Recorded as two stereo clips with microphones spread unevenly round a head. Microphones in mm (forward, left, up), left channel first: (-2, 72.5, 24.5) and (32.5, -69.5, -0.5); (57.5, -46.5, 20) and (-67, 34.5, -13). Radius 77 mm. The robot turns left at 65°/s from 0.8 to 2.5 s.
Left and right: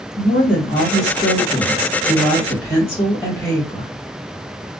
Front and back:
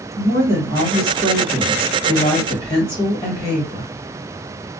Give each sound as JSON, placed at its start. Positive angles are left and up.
{"t": 0.2, "sound": "a woman speaking", "azimuth_deg": 140, "distance_m": 1.4}